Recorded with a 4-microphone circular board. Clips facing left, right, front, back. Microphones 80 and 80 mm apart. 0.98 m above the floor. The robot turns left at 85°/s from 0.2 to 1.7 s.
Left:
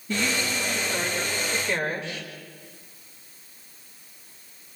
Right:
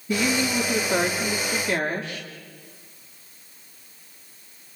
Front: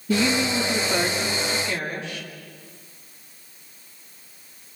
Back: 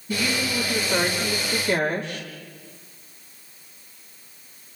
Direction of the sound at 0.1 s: 10° right.